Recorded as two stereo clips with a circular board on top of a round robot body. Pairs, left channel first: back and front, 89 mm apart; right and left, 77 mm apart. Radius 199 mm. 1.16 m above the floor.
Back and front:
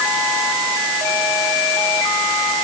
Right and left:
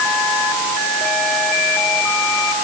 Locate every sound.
Only background noise.